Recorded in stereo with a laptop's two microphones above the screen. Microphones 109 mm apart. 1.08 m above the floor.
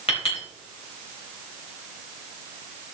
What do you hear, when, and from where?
0.1 s a clink: 60° left (ahead or behind), 3.5 m